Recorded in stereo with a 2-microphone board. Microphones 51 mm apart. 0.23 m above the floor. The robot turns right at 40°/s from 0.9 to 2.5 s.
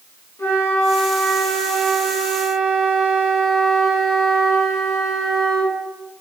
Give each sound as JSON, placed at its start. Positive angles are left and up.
{"t": 0.4, "sound": "a flute", "azimuth_deg": 120, "distance_m": 1.2}